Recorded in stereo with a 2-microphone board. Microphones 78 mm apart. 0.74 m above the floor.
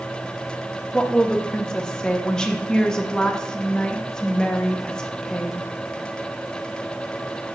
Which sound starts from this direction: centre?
A woman speaking, at 0.9 s.